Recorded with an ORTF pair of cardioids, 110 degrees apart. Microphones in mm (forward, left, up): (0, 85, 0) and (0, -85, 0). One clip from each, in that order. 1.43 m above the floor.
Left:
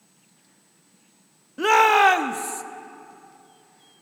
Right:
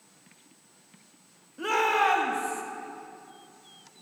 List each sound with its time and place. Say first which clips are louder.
1.6 s a shout: left 8 dB; 50° left, 0.8 m